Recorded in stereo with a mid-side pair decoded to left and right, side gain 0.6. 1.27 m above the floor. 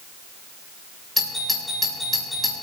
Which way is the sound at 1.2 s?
10° left.